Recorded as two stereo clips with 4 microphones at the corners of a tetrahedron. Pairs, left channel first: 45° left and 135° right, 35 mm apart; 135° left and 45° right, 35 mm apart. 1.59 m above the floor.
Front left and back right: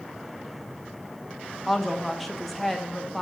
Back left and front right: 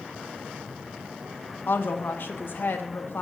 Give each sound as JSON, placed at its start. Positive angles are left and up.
{"t": 1.7, "sound": "a woman speaking", "azimuth_deg": 135, "distance_m": 0.9}